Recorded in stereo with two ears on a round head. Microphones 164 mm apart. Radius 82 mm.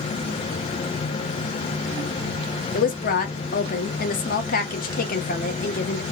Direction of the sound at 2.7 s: 50° left (ahead or behind).